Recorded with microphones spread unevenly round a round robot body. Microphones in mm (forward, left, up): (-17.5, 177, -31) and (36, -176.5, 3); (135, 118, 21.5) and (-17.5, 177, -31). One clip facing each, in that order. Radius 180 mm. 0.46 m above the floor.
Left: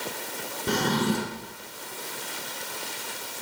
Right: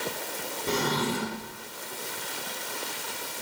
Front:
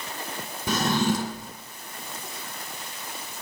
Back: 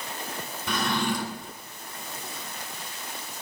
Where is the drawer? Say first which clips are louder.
Left 3 dB, front 4 dB; 30° left, 1.7 m.